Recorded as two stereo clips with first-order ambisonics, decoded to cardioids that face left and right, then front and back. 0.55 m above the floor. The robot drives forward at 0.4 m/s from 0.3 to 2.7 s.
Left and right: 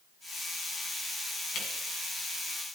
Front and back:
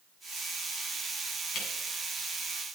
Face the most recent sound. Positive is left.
turn(degrees=50)